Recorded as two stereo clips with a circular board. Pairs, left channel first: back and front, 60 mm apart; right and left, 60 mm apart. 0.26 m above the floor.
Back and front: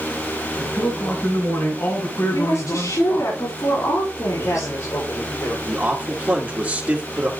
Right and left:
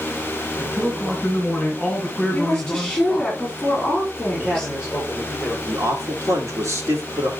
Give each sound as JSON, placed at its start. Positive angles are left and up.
{"t": 0.6, "sound": "a man speaking", "azimuth_deg": -175, "distance_m": 2.5}
{"t": 2.3, "sound": "a woman speaking", "azimuth_deg": -175, "distance_m": 5.5}
{"t": 4.3, "sound": "a man speaking", "azimuth_deg": 165, "distance_m": 6.0}
{"t": 5.7, "sound": "a man speaking", "azimuth_deg": 70, "distance_m": 2.5}